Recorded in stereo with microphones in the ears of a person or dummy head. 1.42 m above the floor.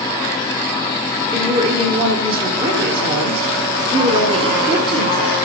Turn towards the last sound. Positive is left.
turn(degrees=-30)  # may be behind; listen again after turning